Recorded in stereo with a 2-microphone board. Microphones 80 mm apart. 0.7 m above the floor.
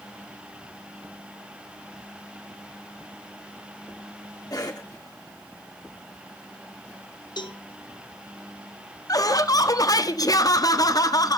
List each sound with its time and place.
4.5 s a cough: 50° left (ahead or behind), 2 m
7.4 s a cowbell: 65° left (ahead or behind), 0.9 m
9.1 s laughter: 50° left (ahead or behind), 0.9 m